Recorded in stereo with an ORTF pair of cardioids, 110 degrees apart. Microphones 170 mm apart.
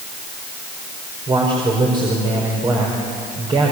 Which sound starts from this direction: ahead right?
A man speaking, at 1.3 s.